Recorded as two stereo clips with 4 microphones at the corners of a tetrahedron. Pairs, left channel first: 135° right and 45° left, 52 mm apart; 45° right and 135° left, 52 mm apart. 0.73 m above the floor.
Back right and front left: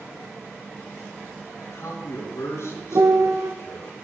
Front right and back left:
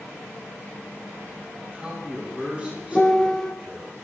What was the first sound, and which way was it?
A man speaking, 155° right.